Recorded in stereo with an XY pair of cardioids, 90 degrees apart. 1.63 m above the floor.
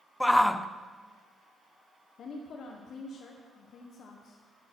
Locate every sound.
0.2 s a shout: 10° left, 0.7 m
2.2 s a woman speaking: 65° left, 1.2 m